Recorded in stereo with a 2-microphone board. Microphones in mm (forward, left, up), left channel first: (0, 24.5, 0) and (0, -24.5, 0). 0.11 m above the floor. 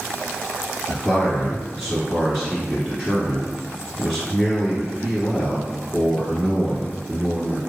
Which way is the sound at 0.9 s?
Centre (ahead or behind).